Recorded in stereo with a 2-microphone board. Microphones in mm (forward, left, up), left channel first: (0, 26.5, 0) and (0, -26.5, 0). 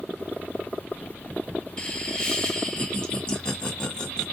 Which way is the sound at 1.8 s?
20° left (ahead or behind).